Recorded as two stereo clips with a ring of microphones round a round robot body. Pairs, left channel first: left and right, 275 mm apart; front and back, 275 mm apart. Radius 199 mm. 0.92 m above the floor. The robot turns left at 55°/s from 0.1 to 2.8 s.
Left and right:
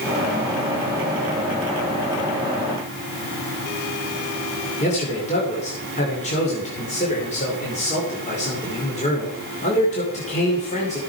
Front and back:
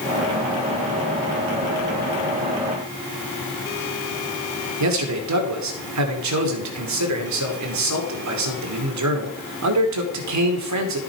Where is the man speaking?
165° left, 2.5 m.